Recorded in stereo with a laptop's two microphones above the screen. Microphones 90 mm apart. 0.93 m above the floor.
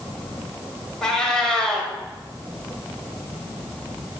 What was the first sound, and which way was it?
A cat meowing, 5° left (ahead or behind).